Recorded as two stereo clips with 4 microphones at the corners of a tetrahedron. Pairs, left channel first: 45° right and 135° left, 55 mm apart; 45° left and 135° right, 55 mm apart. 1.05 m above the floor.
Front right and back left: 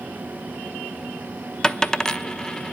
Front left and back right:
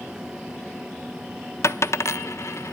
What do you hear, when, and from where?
1.6 s a dropped coin: 30° left, 0.8 m